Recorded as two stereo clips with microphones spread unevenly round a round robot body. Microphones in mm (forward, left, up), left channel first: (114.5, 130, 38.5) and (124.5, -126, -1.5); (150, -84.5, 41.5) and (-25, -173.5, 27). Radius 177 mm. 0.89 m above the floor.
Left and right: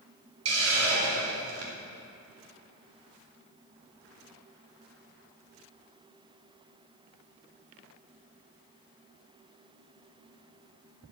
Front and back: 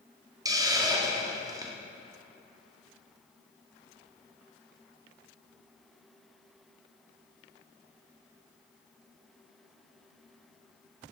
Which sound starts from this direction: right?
A hiss, at 0.5 s.